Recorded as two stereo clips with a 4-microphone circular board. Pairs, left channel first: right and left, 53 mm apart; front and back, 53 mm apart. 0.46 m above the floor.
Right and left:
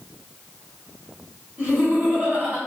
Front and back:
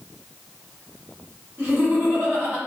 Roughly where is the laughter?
Behind left.